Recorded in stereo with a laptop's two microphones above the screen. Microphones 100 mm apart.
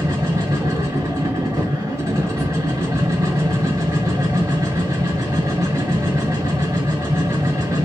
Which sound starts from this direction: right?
A machine running, at 0.0 s.